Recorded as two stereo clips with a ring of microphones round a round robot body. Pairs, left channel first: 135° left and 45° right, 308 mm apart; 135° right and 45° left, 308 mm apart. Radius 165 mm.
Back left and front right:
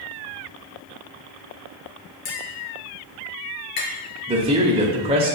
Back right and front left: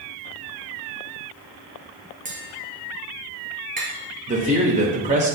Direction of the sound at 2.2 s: 110° left.